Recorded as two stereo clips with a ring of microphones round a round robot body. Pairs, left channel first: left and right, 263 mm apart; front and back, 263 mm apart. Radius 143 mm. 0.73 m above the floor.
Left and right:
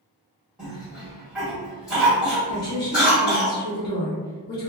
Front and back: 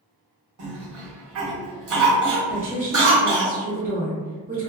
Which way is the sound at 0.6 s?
175° right.